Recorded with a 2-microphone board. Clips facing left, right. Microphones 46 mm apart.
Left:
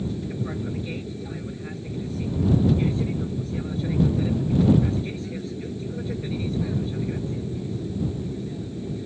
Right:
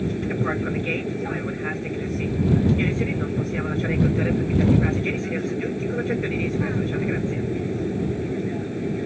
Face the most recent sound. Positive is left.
turn(degrees=-55)  # may be behind; listen again after turning